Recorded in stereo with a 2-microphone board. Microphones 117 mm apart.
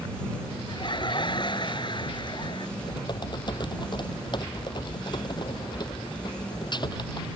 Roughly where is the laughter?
Left.